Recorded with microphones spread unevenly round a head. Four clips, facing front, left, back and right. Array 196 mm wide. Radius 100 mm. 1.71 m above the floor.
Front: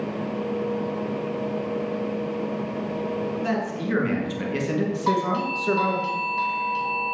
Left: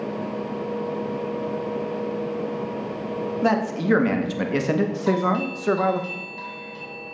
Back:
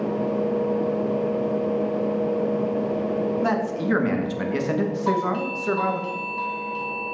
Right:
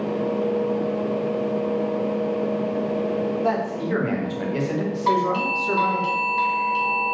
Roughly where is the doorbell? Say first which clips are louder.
Right 4 dB, front 2 dB; ahead right.